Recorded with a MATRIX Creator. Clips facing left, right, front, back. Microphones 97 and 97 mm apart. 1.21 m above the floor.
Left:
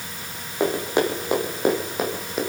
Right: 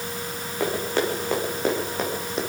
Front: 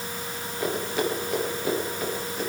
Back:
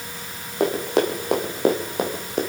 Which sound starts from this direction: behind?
Running footsteps, at 0.6 s.